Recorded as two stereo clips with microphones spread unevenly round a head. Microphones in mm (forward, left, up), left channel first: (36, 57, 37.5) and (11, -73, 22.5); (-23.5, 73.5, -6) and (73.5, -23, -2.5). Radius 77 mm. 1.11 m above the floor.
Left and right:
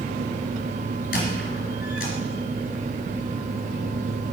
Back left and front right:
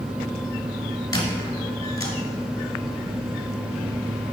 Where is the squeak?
70° left, 2.5 m.